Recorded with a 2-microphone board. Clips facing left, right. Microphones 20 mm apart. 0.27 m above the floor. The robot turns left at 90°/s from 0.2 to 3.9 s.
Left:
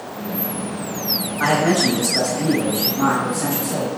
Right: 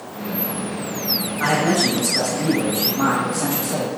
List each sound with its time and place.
1.4 s a man speaking: 20° left (ahead or behind), 1.0 m; by 3.9 s 15° right (ahead or behind), 1.0 m